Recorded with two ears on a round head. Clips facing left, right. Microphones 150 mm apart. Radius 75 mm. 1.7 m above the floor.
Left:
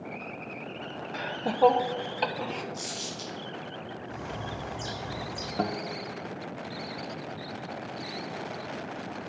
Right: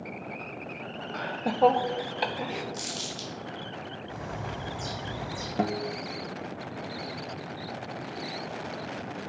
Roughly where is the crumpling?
Right.